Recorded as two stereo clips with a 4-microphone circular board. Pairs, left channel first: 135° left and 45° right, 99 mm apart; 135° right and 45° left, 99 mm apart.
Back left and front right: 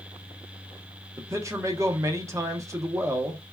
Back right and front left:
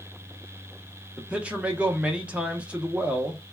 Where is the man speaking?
25° right, 0.8 m.